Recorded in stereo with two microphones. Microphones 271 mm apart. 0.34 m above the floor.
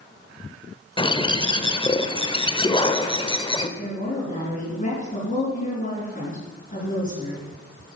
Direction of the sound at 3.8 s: 30° left (ahead or behind).